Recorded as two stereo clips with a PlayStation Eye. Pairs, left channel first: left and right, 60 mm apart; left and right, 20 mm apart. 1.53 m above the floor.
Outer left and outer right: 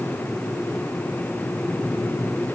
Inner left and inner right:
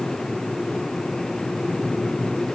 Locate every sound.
Only background noise.